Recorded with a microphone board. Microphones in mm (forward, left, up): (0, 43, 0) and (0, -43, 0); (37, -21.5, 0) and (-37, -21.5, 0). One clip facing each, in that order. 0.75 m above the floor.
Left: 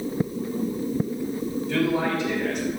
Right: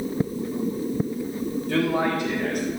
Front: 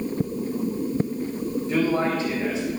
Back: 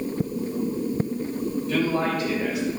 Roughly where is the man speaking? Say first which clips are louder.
Right 1 dB, front 2 dB; ahead right.